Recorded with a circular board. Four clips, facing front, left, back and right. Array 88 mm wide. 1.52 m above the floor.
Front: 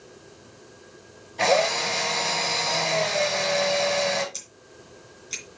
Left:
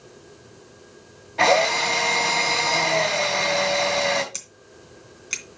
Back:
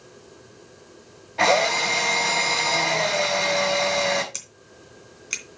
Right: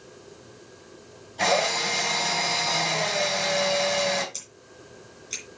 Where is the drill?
130° left, 3.5 m.